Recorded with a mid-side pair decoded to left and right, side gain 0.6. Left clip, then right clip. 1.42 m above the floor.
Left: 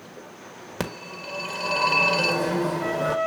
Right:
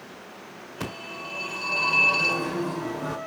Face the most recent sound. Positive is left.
turn(degrees=60)